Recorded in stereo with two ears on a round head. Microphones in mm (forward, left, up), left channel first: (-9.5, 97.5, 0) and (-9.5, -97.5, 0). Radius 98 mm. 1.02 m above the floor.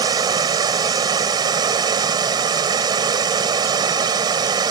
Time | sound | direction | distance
0.0 | running water | 20° right (ahead or behind) | ?